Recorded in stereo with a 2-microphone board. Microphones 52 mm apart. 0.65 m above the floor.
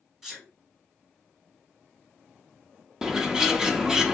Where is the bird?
15° right (ahead or behind), 0.5 m.